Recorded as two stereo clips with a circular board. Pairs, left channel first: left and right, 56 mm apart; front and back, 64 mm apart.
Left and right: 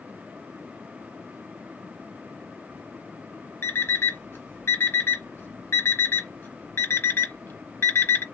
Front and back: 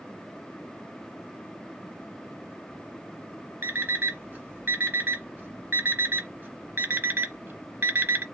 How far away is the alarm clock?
About 0.9 m.